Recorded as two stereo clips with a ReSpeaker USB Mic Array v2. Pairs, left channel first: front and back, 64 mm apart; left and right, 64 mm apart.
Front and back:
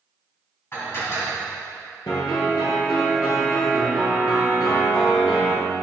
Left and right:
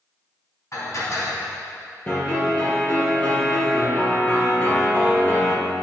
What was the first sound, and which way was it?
Dishes clattering, 50° left.